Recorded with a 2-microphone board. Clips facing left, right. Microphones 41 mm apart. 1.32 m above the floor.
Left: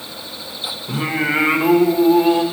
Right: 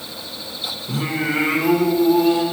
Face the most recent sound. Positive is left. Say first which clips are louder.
# left 3 dB
turn(degrees=30)  # may be behind; listen again after turning